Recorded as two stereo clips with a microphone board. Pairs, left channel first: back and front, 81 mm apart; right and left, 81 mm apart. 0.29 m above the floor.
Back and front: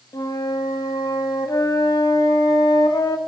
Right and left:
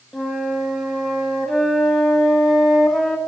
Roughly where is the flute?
Behind.